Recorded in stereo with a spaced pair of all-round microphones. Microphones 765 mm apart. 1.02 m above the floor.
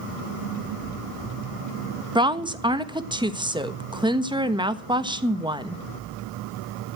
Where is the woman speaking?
5° right (ahead or behind), 1.3 m.